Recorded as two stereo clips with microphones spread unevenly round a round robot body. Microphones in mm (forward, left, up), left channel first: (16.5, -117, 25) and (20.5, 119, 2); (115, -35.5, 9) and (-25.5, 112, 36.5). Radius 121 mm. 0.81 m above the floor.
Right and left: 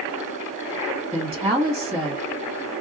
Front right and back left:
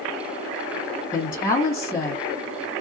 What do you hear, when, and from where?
1.1 s a woman speaking: 20° left, 1.7 m